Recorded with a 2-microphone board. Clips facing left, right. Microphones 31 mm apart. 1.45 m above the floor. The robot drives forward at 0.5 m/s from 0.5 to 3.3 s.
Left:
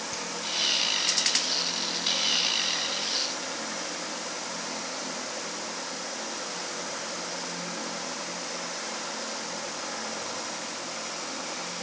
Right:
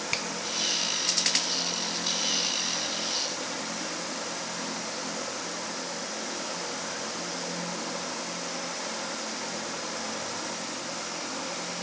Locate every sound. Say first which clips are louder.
0.1 s a finger snap: right 5 dB; 60° right (ahead or behind), 0.7 m